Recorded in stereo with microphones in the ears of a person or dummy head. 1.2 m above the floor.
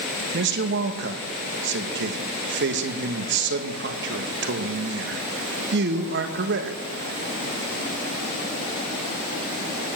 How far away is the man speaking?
About 1.3 m.